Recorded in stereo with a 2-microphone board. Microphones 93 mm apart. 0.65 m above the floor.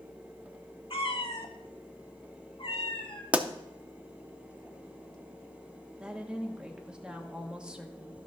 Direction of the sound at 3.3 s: 15° right (ahead or behind).